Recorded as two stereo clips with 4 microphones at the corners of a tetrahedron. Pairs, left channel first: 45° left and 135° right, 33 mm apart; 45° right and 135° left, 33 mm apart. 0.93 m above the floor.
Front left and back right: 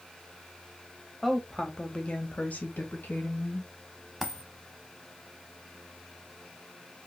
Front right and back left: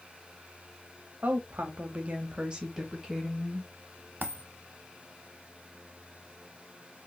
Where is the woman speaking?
135° left, 0.8 m; by 3.7 s 50° left, 1.1 m.